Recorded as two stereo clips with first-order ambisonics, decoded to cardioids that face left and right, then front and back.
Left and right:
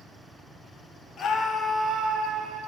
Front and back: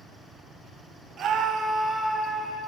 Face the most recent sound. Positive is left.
turn(degrees=-70)